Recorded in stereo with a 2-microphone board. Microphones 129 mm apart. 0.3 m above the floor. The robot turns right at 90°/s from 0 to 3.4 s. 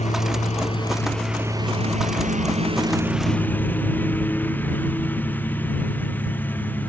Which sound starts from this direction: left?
A lawn mower, at 0.0 s.